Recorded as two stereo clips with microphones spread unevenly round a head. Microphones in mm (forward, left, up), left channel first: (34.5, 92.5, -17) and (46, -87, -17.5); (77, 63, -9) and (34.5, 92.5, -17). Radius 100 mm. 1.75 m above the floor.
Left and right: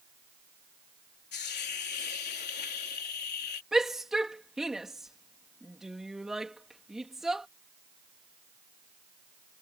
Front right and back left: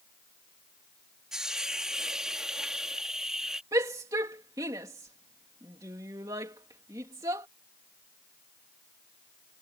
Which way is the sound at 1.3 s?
65° left.